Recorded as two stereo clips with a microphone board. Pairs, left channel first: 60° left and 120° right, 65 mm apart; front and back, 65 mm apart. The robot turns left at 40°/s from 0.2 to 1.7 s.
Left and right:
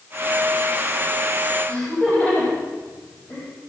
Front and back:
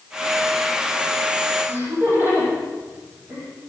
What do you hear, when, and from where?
1.7 s laughter: 120° left, 7 m